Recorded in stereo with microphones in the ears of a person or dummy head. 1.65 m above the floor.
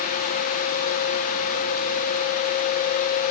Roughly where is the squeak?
No squeak in this recording.